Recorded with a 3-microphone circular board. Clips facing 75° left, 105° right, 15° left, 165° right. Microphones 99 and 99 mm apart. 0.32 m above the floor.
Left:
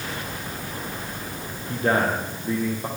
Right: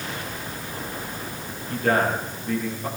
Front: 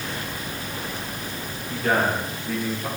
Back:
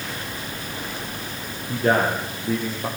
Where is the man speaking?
140° left, 8.5 m.